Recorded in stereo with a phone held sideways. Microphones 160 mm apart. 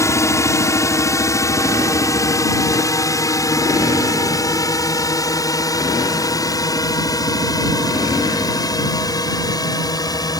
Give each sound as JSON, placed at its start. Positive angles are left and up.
{"t": 0.0, "sound": "a drone", "side_deg": 20}